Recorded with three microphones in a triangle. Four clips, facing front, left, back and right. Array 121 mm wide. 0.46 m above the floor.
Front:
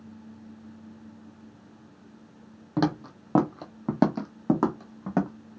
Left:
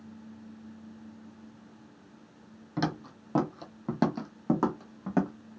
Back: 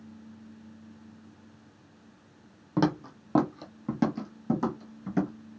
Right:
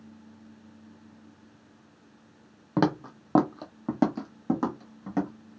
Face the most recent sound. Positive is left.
turn(degrees=10)